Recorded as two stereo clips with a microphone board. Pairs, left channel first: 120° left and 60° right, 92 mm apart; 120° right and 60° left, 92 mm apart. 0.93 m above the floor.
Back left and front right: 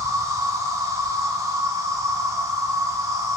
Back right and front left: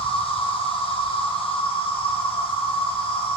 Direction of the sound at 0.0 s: 115° right.